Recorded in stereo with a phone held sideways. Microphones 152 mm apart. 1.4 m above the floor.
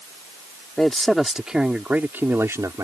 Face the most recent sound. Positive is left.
turn(degrees=-25)  # may be behind; listen again after turning